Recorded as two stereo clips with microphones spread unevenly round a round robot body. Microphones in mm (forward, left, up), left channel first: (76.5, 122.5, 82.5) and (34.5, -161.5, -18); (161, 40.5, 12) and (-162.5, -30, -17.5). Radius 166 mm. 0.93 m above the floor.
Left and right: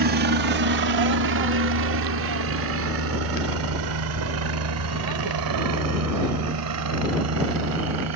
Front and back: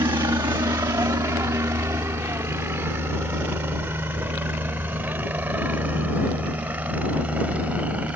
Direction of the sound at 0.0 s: 90° right.